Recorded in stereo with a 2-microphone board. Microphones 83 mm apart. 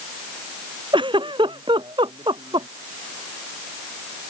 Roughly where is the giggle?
Right.